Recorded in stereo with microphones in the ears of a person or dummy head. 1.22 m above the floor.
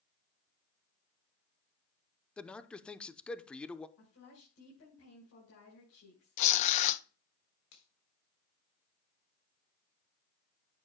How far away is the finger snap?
About 3.5 m.